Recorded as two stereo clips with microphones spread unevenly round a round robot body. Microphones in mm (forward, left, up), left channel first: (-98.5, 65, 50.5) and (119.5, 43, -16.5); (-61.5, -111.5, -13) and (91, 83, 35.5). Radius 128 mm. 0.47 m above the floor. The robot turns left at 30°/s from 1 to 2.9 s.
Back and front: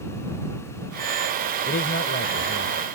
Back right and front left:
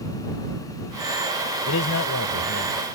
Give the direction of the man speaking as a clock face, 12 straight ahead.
4 o'clock.